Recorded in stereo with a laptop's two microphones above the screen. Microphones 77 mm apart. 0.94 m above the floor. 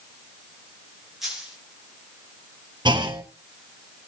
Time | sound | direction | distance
1.2 | a dropped coin | 5° right (ahead or behind) | 4 m
2.9 | a clunk | 70° right (ahead or behind) | 1.7 m